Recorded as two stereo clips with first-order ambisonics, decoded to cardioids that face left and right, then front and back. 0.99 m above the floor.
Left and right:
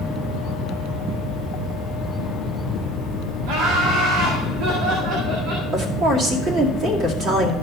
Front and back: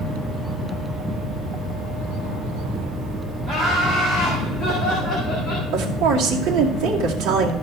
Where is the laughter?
90° right, 2 m; by 5.6 s 70° right, 3 m.